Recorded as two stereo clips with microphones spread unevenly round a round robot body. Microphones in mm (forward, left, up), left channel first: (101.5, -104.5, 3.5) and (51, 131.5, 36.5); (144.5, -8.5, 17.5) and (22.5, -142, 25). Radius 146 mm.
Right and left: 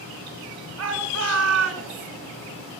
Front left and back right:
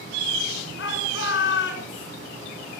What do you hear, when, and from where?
0.8 s a shout: 85° left, 6 m